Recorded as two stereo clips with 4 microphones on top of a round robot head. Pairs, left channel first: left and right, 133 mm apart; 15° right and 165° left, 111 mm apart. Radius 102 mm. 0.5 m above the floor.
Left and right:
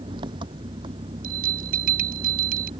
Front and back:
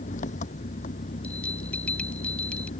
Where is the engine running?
30° right.